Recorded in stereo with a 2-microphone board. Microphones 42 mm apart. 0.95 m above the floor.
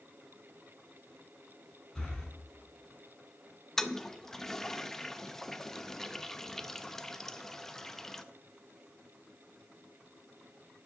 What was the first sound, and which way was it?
Breathing, 15° left (ahead or behind).